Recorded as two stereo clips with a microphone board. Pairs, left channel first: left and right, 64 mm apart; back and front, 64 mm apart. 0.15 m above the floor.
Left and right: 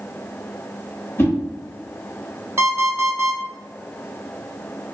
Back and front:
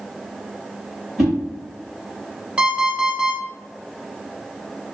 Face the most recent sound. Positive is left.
turn(degrees=-65)